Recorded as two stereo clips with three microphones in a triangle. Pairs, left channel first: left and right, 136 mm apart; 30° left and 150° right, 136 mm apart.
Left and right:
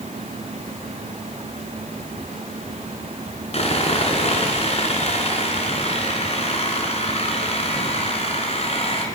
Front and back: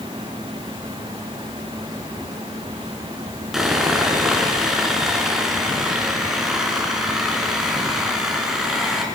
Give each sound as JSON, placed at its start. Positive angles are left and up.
{"t": 3.5, "sound": "sawing", "azimuth_deg": 125, "distance_m": 3.5}